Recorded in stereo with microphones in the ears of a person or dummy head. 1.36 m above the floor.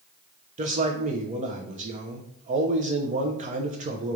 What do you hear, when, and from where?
0.6 s a man speaking: 40° right (ahead or behind), 0.8 m